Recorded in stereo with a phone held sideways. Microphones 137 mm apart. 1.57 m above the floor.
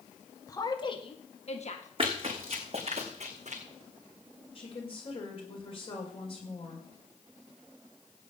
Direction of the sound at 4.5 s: 45° left (ahead or behind).